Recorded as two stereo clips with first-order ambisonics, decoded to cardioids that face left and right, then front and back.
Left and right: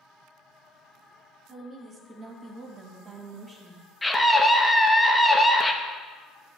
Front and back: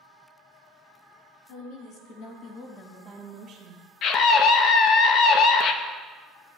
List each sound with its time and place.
1.5 s a woman speaking: 25° right, 1.8 m; by 3.8 s 170° right, 1.2 m
4.0 s a scream: 5° left, 0.6 m